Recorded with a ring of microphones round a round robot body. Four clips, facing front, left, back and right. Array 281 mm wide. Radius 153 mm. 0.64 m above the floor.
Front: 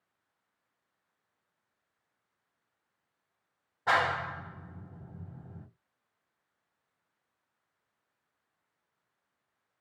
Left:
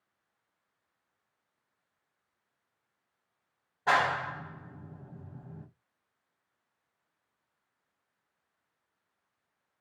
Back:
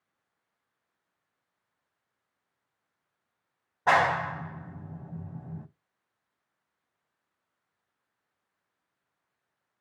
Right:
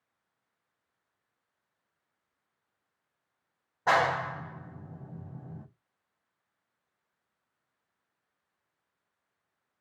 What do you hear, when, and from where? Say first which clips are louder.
3.9 s a clap: right 2 dB, back 5 dB; 155° right, 1.0 m